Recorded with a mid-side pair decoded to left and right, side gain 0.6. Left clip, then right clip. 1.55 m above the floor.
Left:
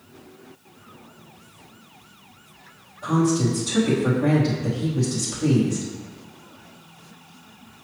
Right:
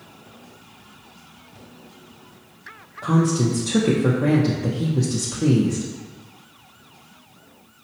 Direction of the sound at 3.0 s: 40° right.